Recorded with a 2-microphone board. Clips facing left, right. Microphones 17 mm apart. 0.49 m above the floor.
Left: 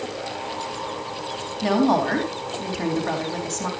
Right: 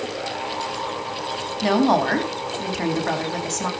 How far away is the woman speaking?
About 4 m.